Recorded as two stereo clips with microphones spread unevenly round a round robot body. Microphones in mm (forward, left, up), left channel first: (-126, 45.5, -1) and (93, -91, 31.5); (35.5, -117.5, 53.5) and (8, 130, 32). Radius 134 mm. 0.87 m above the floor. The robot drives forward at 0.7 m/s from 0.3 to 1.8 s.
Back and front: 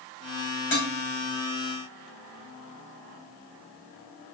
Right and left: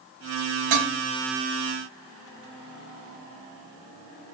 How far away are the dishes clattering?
About 3 m.